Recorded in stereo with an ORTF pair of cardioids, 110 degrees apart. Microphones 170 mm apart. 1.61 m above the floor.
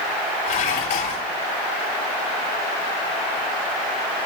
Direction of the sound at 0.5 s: 60° left.